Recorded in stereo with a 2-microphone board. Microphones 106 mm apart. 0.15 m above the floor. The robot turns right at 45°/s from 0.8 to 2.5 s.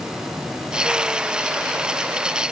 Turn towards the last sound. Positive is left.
No sound to turn to.